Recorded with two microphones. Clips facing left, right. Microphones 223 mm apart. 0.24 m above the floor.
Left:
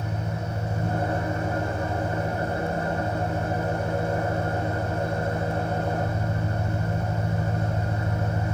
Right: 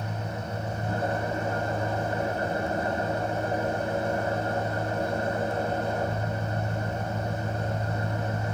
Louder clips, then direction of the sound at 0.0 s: Left 2 dB; 50° left (ahead or behind).